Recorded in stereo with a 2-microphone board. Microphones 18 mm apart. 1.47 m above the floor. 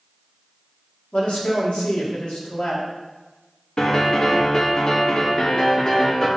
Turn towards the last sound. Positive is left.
turn(degrees=40)  # may be behind; listen again after turning